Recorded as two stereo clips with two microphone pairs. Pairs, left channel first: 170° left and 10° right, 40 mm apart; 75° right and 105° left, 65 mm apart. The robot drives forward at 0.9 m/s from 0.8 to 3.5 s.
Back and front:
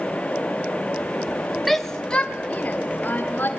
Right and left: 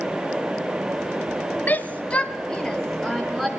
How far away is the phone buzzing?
No phone buzzing in this recording.